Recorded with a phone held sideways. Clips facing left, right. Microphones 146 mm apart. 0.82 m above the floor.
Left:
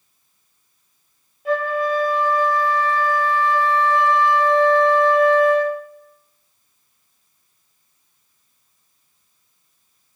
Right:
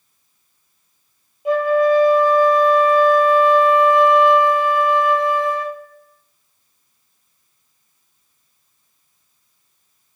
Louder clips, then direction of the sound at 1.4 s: Right 6 dB; 20° right (ahead or behind).